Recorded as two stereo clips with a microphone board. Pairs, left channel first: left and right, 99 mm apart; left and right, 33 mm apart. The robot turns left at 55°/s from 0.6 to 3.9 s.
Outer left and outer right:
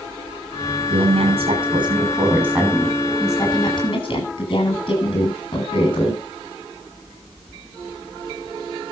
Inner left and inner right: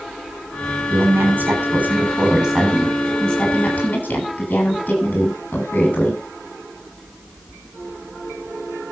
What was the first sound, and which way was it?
A woman speaking, 70° right.